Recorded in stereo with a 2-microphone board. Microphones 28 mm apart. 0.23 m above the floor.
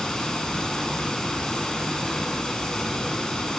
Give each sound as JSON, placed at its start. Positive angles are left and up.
{"t": 0.0, "sound": "running water", "side_deg": 25, "distance_m": 1.1}